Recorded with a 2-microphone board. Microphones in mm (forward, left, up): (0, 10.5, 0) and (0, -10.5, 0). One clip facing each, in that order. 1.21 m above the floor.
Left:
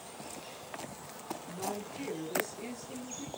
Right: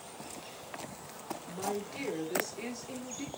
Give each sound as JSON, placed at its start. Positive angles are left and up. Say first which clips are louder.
{"t": 1.5, "sound": "a woman speaking", "louder": "right 3 dB", "side_deg": -60, "distance_m": 4.0}